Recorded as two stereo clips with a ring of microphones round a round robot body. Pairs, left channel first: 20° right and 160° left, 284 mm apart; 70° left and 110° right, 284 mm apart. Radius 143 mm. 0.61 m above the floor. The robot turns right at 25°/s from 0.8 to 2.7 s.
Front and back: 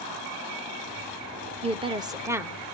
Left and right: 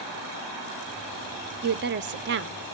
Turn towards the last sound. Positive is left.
turn(degrees=-115)